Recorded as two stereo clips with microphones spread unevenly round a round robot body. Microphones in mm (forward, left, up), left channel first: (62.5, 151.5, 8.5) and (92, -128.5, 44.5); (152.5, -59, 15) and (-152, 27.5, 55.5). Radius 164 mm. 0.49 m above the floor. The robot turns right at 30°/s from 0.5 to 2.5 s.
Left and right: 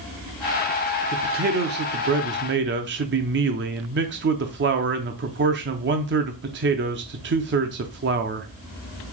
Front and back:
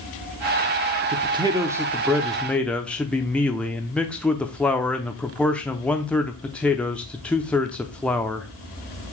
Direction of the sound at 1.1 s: 125° right.